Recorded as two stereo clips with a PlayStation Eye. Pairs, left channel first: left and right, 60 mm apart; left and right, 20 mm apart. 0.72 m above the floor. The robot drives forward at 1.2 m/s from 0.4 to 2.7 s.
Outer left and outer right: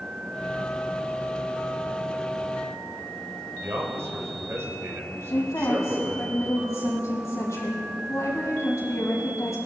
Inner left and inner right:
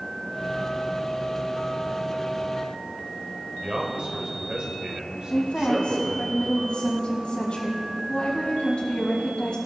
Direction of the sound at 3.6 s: 50° right (ahead or behind).